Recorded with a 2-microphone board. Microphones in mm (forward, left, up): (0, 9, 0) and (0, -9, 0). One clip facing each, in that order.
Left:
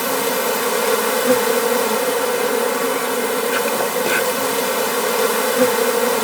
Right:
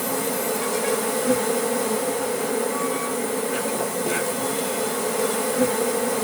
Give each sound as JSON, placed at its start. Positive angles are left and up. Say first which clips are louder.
{"t": 0.0, "sound": "an insect", "louder": "left 6 dB", "side_deg": 75, "distance_m": 1.0}